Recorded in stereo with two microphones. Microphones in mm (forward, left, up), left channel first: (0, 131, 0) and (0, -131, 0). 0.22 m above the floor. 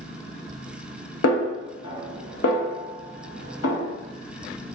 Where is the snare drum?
65° left (ahead or behind), 0.5 m.